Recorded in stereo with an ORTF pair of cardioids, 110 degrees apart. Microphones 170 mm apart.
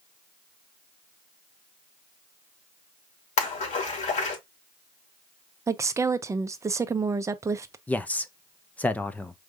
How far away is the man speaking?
About 0.7 m.